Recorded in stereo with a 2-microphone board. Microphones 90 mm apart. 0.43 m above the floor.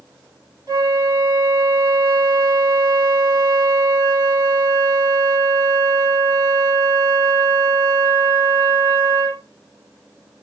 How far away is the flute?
About 1.6 m.